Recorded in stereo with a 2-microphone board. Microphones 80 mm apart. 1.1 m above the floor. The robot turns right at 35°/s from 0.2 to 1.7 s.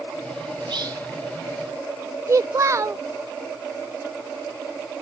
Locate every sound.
0.6 s whispering: 70° right (ahead or behind); by 1.1 s 55° right (ahead or behind)
2.3 s a child speaking: 40° right (ahead or behind)